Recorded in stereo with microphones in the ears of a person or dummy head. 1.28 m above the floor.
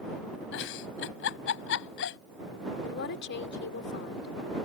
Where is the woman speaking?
60° left (ahead or behind).